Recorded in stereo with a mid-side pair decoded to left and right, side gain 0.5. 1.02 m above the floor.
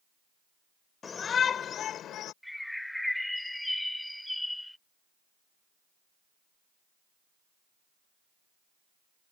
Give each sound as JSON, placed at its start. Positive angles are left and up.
{"t": 1.0, "sound": "a shout", "azimuth_deg": 40}
{"t": 2.4, "sound": "a bird", "azimuth_deg": 10}